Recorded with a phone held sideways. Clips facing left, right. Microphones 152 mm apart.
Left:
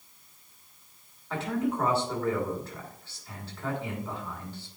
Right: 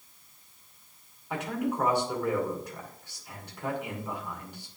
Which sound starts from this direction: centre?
A man speaking, at 1.3 s.